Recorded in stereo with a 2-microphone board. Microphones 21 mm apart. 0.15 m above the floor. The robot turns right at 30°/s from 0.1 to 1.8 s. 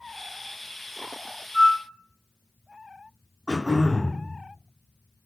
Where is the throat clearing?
35° left (ahead or behind), 1.5 m.